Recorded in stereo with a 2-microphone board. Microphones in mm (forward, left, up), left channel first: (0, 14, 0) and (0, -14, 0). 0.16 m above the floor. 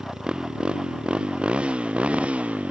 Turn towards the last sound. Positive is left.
turn(degrees=-55)  # may be behind; listen again after turning